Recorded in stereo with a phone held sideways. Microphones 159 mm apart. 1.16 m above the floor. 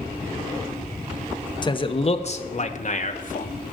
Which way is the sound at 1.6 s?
30° left (ahead or behind).